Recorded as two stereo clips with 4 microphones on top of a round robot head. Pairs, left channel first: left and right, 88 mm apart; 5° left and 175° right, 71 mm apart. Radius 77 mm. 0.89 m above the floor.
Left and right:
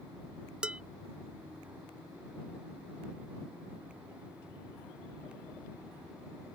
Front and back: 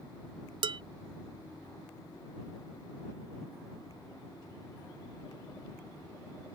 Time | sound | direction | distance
0.6 | dishes clattering | 170° right | ?